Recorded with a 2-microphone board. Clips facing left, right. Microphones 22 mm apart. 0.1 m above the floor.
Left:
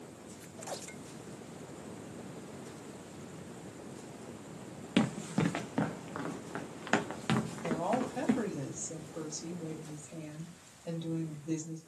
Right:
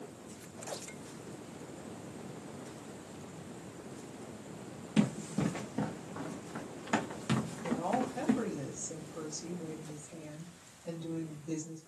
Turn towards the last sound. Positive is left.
turn(degrees=55)  # may be behind; listen again after turning